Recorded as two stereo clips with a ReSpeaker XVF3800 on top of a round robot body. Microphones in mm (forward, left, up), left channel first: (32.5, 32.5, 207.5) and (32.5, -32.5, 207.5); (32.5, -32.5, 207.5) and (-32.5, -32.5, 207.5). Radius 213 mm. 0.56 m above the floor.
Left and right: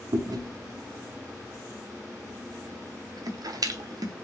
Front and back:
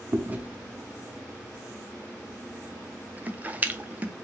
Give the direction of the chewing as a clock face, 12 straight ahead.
4 o'clock.